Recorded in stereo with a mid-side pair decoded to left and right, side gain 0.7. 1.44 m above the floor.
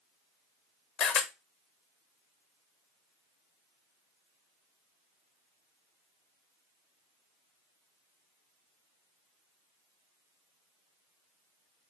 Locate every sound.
1.0 s a camera shutter: 50° left, 1.6 m